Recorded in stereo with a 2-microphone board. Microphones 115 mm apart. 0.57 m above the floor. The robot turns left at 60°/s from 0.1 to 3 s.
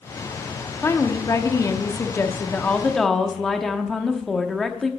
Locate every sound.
0.8 s a woman speaking: 20° left (ahead or behind), 0.9 m; by 4.9 s centre (ahead or behind), 0.9 m